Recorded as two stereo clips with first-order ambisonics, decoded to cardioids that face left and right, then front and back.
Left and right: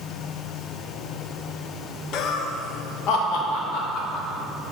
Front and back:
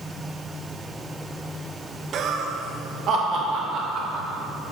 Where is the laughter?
125° left, 0.5 m.